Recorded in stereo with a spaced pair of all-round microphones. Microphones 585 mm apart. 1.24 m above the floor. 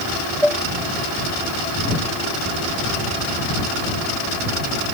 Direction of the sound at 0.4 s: 80° right.